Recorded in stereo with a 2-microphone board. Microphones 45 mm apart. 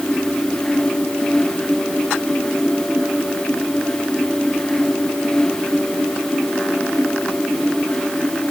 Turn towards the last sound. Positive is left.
No sound to turn to.